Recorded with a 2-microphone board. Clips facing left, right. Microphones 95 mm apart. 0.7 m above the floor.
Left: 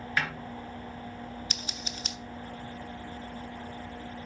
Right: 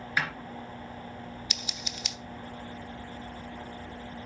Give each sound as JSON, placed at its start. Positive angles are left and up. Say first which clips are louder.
{"t": 0.2, "sound": "a snare drum", "louder": "even", "side_deg": -10, "distance_m": 2.5}
{"t": 1.5, "sound": "scissors", "louder": "left 1 dB", "side_deg": 40, "distance_m": 0.8}